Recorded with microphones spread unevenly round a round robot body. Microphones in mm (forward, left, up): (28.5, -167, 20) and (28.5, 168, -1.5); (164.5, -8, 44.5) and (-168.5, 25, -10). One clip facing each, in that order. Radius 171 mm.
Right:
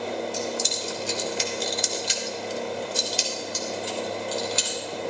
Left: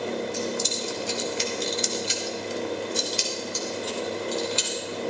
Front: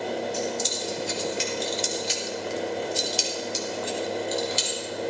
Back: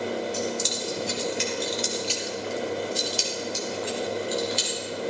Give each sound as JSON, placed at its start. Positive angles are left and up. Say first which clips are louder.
{"t": 0.3, "sound": "keys jangling", "louder": "left 1 dB, even", "azimuth_deg": -120, "distance_m": 1.9}